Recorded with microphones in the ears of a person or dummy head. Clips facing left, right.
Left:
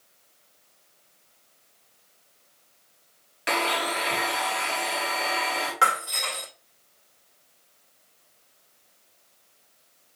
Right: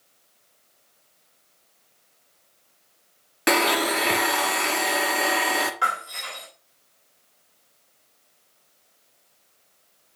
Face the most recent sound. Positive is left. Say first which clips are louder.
# left 3 dB
turn(degrees=60)  # may be behind; listen again after turning